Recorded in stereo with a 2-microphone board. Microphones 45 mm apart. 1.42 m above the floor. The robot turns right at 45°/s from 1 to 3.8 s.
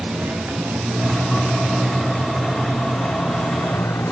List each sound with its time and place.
0.0 s a motorcycle: 50° right (ahead or behind); by 4.1 s 75° left (ahead or behind)